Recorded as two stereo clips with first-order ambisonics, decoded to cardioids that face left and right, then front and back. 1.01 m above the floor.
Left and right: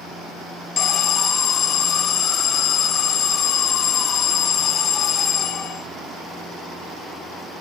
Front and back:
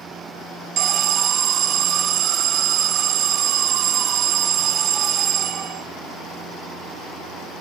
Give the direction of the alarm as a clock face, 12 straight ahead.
7 o'clock.